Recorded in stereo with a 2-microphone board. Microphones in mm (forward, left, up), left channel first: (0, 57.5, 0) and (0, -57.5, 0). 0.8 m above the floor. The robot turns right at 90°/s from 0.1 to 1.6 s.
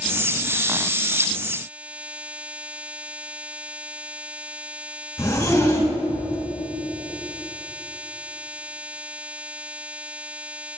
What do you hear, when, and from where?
5.2 s a zipper: 30° left (ahead or behind), 5 m